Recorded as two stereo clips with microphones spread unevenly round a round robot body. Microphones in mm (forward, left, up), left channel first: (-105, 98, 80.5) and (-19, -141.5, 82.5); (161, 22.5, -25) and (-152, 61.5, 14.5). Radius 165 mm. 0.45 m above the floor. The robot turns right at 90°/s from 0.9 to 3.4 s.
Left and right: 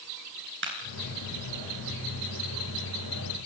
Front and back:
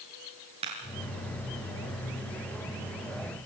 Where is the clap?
115° right, 7.5 m.